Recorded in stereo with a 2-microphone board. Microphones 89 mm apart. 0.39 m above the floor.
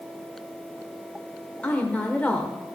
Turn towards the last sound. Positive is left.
turn(degrees=15)  # may be behind; listen again after turning